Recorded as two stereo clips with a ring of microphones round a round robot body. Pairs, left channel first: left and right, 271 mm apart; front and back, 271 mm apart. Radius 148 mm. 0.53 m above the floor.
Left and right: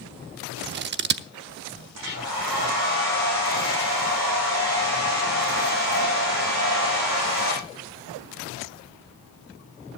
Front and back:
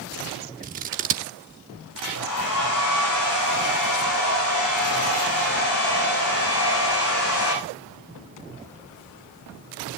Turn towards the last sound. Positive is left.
turn(degrees=-50)